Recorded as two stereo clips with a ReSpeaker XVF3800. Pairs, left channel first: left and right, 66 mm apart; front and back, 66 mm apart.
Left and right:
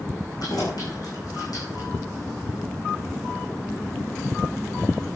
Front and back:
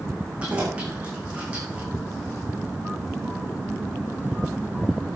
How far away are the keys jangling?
About 7 m.